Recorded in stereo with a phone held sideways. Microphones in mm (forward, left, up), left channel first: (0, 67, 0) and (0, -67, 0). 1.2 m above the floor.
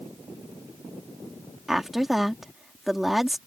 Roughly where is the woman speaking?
Centre.